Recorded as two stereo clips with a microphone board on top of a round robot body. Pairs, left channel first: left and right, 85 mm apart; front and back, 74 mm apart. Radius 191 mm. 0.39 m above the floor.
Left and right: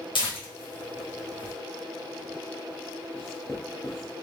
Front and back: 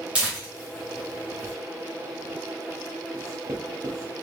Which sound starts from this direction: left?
Tearing paper, at 0.1 s.